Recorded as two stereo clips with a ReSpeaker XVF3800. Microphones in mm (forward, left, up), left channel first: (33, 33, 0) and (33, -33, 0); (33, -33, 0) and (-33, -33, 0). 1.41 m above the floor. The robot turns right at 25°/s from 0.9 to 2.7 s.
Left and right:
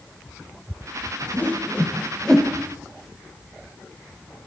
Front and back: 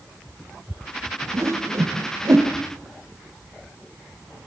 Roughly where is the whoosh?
Behind left.